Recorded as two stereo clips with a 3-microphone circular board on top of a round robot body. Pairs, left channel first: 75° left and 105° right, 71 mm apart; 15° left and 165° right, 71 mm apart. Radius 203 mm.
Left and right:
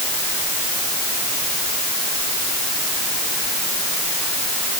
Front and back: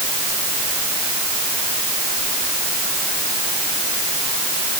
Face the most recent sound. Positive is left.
No sound to turn to.